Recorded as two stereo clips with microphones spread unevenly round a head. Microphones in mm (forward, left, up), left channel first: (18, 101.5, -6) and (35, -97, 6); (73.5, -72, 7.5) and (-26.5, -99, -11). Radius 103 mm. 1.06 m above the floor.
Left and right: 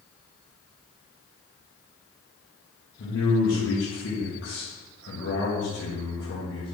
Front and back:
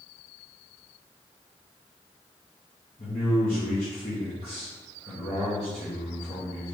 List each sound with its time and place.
3.0 s a man speaking: 70° left, 0.9 m